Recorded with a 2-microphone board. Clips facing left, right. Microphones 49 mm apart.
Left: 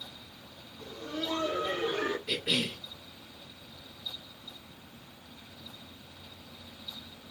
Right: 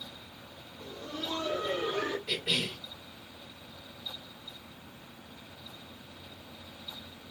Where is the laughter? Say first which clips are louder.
Left 2 dB; 25° left (ahead or behind), 1.4 m; by 2.2 s 15° left (ahead or behind), 1.7 m.